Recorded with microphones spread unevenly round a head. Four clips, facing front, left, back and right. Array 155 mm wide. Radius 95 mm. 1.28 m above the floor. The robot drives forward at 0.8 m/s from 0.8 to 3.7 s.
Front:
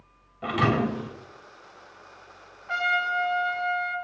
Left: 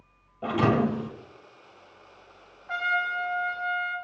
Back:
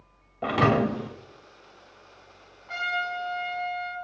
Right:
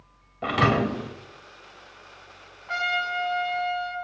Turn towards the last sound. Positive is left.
turn(degrees=-75)